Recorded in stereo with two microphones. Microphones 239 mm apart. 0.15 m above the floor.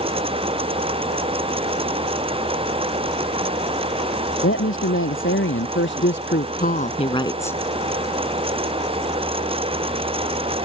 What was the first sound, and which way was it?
A woman speaking, 60° left (ahead or behind).